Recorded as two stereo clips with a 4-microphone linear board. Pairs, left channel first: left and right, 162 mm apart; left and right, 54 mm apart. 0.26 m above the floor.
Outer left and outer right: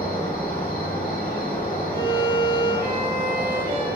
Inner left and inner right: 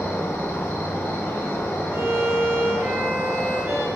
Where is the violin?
75° right (ahead or behind), 1.6 m.